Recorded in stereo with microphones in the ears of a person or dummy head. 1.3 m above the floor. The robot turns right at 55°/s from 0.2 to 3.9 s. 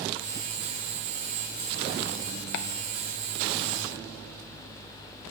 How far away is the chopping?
About 0.6 m.